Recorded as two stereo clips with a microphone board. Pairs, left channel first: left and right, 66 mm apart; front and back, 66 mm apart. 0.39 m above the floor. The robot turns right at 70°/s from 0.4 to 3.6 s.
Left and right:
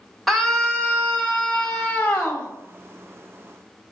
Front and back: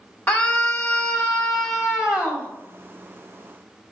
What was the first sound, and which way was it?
A scream, 10° left.